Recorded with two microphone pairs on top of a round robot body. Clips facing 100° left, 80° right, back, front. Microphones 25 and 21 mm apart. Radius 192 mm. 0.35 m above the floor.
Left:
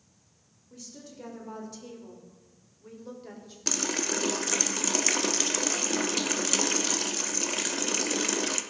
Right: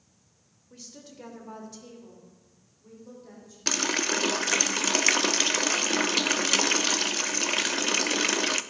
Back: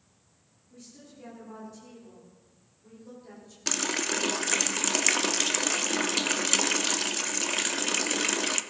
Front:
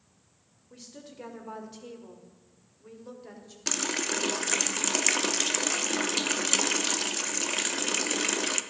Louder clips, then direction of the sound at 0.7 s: Left 1 dB, front 3 dB; 25° right.